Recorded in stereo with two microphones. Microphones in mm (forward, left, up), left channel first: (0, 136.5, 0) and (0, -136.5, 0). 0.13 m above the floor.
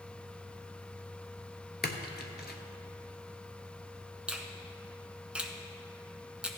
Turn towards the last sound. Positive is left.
turn(degrees=-5)  # may be behind; listen again after turning